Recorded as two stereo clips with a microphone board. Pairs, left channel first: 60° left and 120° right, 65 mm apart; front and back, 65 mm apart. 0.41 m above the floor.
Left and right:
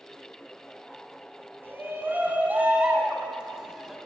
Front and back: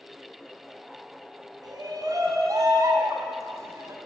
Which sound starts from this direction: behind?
A shout, at 1.6 s.